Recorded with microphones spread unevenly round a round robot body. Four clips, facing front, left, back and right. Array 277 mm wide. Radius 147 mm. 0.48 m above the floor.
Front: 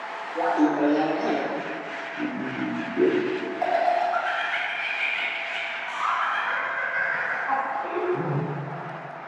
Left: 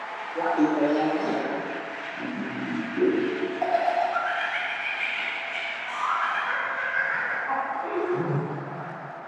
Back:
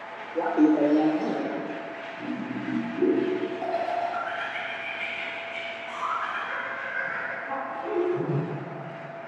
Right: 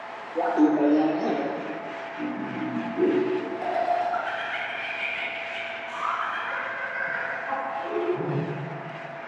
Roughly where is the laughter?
Behind right.